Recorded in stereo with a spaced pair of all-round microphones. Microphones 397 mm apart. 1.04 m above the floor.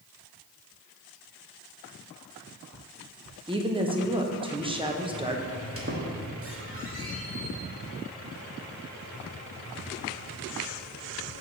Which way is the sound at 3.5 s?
15° right (ahead or behind).